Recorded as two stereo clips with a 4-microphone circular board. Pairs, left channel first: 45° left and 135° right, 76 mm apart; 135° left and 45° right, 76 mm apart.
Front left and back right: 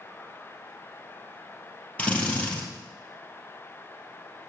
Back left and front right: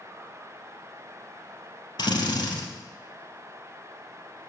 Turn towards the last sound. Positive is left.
turn(degrees=115)